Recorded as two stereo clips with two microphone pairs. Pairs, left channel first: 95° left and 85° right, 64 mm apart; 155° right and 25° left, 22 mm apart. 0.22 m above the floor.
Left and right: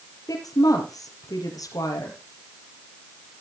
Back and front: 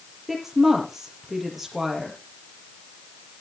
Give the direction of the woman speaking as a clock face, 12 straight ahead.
8 o'clock.